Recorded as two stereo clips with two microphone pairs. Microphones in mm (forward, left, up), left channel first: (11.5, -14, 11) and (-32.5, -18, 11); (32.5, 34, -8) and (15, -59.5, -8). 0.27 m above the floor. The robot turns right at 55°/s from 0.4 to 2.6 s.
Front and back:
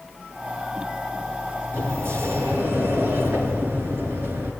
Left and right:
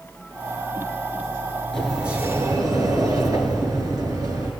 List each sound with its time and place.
1.7 s a sliding door: 165° left, 3.5 m; by 4.5 s 150° right, 3.5 m